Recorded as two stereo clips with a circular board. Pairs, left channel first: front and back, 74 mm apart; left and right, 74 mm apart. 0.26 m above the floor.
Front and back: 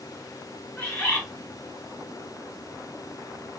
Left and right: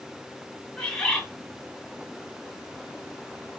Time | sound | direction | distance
0.8 | a bird | 20° left | 1.2 m